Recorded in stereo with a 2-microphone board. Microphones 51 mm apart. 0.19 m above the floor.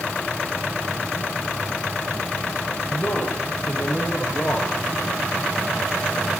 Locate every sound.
2.9 s a man speaking: 45° left (ahead or behind), 7 m